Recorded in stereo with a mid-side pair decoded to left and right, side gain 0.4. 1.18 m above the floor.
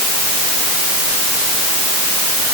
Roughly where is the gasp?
I don't hear a gasp.